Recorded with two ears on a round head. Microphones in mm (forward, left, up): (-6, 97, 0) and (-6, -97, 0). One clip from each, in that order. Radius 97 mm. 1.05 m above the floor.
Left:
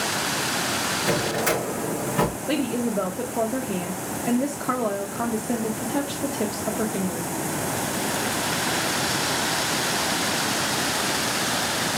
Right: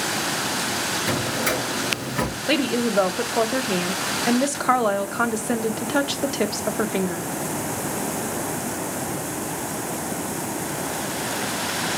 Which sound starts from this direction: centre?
A drawer, at 1.1 s.